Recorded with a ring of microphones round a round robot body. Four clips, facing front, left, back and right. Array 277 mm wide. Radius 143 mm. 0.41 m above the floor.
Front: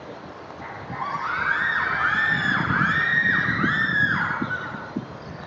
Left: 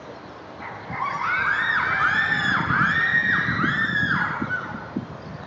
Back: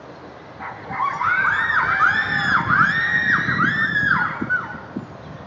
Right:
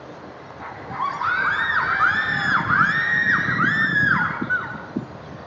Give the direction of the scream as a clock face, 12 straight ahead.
6 o'clock.